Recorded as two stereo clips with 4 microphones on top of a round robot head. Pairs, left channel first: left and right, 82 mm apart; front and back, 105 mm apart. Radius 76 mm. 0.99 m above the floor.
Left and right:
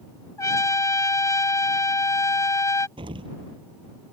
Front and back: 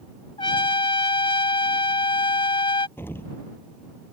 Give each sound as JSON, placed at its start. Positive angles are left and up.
{"t": 0.4, "sound": "a trumpet", "azimuth_deg": 40}
{"t": 3.0, "sound": "an explosion", "azimuth_deg": -75}